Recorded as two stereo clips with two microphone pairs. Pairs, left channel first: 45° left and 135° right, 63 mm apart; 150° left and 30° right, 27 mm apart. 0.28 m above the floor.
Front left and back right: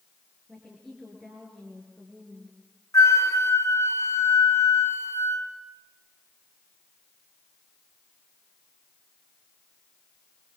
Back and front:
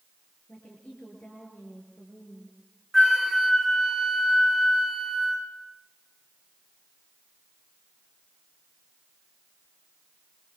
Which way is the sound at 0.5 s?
125° left.